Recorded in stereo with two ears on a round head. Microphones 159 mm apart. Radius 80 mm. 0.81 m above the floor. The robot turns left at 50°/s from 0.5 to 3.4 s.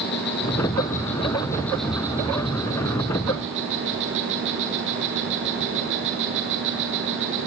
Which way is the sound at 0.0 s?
70° left.